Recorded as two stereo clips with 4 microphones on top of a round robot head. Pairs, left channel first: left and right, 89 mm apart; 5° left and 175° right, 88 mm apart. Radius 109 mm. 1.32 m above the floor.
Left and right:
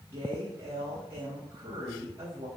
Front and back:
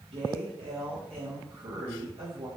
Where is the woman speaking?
155° right, 3 m.